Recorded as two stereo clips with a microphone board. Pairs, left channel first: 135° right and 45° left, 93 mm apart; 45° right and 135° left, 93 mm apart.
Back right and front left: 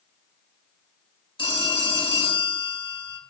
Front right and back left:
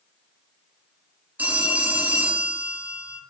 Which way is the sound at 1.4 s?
150° right.